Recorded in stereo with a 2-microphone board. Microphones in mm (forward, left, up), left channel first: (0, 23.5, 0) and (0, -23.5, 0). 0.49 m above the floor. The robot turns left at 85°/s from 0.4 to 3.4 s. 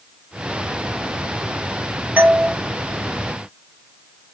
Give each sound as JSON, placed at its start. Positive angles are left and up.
{"t": 2.2, "sound": "a doorbell", "side_deg": -30, "distance_m": 1.8}